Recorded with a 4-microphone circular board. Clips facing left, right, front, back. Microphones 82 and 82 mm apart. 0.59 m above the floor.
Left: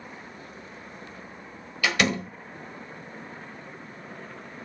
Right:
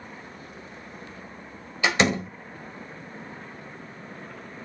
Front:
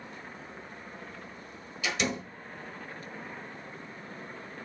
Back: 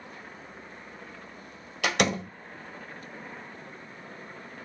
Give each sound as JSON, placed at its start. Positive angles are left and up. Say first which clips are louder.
{"t": 1.8, "sound": "a door slam", "louder": "right 2 dB, back 6 dB", "azimuth_deg": -155, "distance_m": 1.5}